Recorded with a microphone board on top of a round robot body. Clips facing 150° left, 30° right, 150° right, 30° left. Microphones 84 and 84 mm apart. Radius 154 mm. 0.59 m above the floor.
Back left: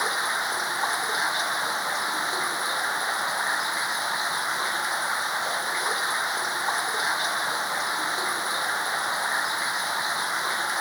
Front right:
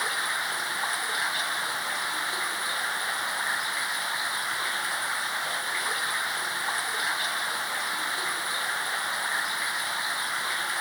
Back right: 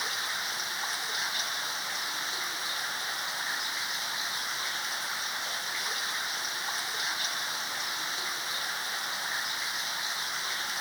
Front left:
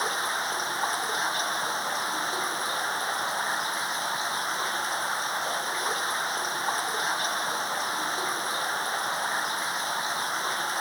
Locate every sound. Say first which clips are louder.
0.0 s running water: back left 3 dB, front left 7 dB; 80° left